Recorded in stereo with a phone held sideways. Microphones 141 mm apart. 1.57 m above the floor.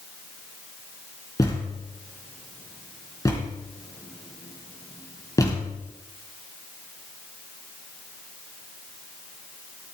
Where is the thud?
25° left (ahead or behind), 3 m.